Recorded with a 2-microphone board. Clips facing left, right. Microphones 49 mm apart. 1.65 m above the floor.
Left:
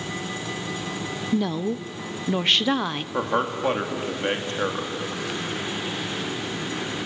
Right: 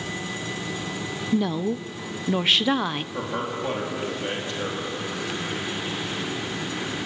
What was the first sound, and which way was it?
A woman speaking, centre (ahead or behind).